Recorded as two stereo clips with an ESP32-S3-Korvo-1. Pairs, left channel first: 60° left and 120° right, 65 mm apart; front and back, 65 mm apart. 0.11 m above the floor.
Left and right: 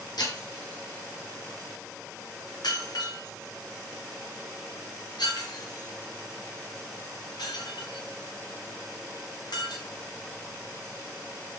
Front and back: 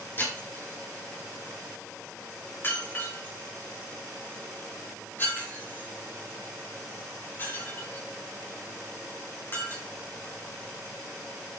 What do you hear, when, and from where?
0.2 s breaking glass: 60° left, 7.5 m